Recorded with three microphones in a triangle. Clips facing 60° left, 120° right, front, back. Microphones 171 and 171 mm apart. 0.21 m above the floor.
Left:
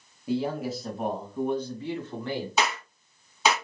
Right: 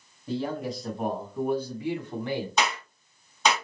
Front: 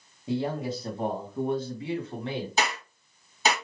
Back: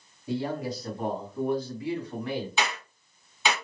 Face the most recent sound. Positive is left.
turn(degrees=-20)